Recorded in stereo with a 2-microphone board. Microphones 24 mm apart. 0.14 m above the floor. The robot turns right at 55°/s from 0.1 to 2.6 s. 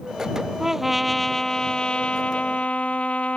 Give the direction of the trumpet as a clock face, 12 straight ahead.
1 o'clock.